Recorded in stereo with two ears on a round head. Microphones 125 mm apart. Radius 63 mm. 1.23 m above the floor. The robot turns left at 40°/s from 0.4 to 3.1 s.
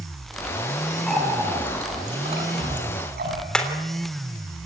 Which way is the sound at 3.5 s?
5° left (ahead or behind).